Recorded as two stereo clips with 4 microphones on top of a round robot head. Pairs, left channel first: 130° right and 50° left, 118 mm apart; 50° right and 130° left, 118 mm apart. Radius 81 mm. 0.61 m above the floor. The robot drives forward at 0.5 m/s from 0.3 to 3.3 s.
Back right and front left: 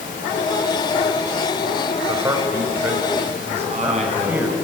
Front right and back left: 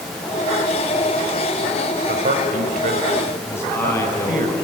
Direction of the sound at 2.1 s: 120° left.